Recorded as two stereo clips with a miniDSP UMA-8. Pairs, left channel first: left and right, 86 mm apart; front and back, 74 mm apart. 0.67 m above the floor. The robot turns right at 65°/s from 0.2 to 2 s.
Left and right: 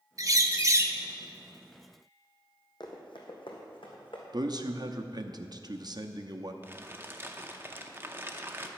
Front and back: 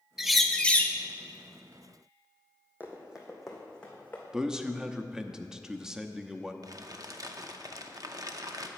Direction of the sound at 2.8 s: 115° left.